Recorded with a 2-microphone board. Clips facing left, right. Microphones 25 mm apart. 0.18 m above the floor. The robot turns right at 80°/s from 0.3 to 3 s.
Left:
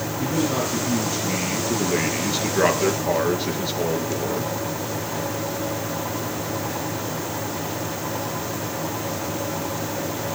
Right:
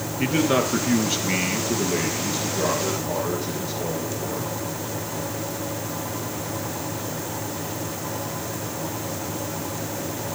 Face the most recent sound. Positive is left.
turn(degrees=100)